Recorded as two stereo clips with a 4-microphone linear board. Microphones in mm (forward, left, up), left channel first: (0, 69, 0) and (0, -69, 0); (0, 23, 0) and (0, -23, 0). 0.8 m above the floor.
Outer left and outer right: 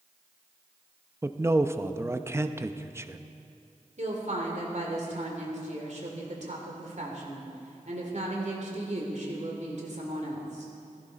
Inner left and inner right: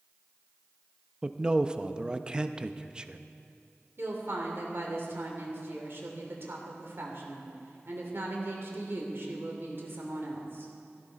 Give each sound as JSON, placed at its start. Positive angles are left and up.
{"t": 1.2, "sound": "a man speaking", "side_deg": -20, "distance_m": 0.6}
{"t": 4.0, "sound": "a woman speaking", "side_deg": -60, "distance_m": 2.5}